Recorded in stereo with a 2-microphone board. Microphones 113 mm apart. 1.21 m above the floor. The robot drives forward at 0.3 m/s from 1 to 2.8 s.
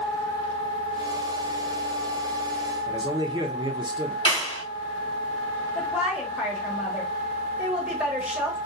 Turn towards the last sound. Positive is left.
turn(degrees=-10)  # may be behind; listen again after turning